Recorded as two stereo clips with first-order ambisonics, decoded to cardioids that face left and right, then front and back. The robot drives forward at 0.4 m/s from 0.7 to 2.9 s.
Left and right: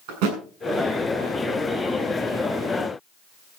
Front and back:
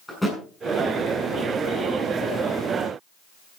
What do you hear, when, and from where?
0.1 s a thud: 85° right, 7.5 m